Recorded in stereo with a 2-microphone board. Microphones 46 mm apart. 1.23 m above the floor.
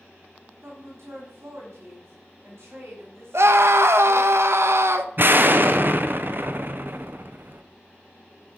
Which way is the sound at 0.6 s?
70° right (ahead or behind).